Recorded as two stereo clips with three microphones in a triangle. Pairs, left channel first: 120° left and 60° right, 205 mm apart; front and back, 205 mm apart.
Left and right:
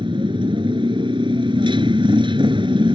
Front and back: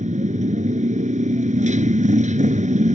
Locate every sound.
0.0 s a motorcycle: 125° right